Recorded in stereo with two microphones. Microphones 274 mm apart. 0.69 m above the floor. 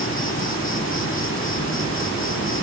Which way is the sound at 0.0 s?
50° left (ahead or behind).